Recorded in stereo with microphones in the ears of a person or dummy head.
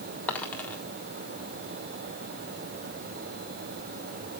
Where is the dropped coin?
10° left (ahead or behind), 1.6 m.